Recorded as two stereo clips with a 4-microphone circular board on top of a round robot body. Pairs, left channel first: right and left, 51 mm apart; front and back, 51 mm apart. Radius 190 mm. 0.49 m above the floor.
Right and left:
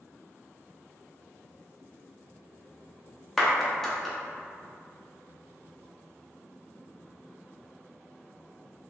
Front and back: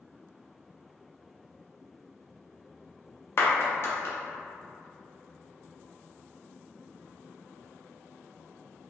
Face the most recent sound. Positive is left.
turn(degrees=-10)